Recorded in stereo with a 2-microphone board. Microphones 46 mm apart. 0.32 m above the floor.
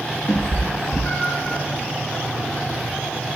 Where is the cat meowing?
40° left (ahead or behind), 2.5 m.